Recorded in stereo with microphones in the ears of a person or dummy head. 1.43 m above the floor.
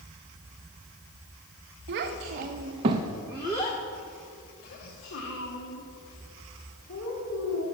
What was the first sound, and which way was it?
A child speaking, 55° right (ahead or behind).